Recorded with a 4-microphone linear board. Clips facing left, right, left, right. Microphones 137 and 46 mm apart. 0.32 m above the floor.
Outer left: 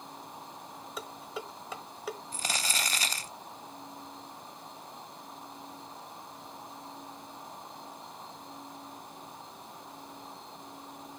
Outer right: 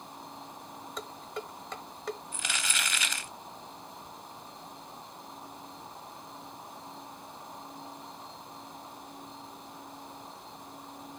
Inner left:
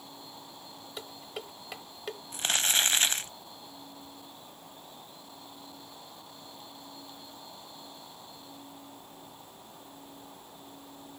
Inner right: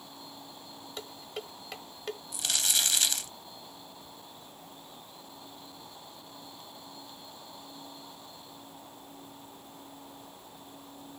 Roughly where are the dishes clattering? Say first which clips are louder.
Outer right 1 dB, inner right 1 dB; centre.